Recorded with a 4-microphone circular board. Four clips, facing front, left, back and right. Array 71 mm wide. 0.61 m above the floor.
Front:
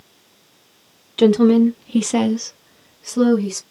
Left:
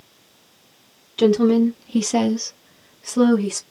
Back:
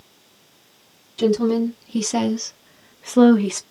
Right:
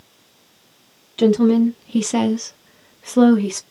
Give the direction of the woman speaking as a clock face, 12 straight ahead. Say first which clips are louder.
Right 1 dB, front 6 dB; 12 o'clock.